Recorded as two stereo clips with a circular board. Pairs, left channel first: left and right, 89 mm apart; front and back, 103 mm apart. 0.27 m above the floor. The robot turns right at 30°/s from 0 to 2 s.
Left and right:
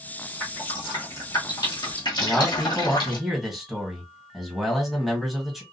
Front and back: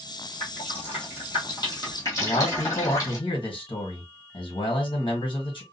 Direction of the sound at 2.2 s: Straight ahead.